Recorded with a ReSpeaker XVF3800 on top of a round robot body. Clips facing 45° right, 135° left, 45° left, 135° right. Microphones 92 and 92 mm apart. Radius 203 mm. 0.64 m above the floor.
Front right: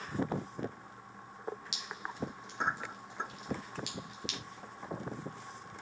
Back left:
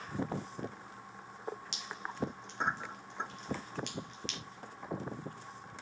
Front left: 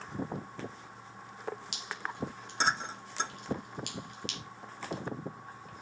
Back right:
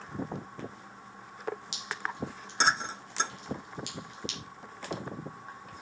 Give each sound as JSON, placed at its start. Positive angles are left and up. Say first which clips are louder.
{"t": 1.7, "sound": "dripping", "louder": "even, back right 3 dB", "azimuth_deg": 40, "distance_m": 2.5}